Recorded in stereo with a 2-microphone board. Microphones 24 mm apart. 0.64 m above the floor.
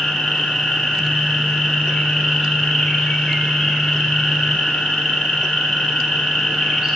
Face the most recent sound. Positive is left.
turn(degrees=45)  # may be behind; listen again after turning